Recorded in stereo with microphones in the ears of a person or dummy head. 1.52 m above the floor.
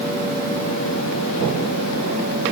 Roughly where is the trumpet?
I don't hear a trumpet.